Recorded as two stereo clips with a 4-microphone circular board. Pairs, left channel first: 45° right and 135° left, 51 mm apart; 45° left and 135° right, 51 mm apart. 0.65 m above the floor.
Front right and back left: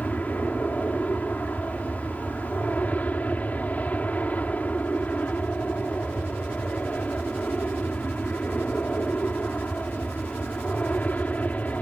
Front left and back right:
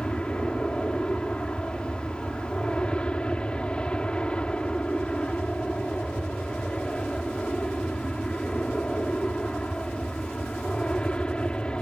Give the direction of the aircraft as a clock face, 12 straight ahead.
12 o'clock.